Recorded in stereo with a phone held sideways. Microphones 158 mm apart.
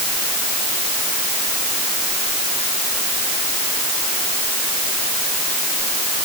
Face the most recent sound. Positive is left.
No sound to turn to.